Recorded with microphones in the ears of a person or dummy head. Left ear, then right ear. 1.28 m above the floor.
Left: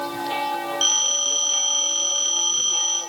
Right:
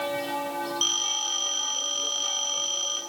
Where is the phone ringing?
5° left (ahead or behind), 9 m.